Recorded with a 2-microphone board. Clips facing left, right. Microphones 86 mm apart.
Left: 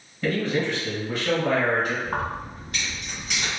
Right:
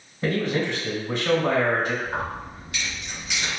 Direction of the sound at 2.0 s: 45° left (ahead or behind).